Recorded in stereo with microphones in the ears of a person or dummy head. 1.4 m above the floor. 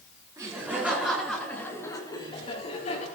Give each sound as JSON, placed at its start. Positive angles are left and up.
{"t": 0.4, "sound": "laughter", "side_deg": -15, "distance_m": 4.5}